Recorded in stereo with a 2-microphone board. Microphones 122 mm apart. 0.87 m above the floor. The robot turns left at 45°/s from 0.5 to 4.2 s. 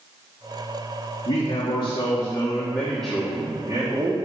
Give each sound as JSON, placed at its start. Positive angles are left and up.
{"t": 1.2, "sound": "a man speaking", "azimuth_deg": 80, "distance_m": 1.9}